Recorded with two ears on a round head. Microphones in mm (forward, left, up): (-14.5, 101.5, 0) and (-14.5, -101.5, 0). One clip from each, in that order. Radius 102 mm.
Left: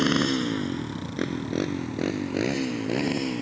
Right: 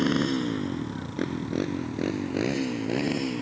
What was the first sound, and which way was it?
A motorcycle, 25° left (ahead or behind).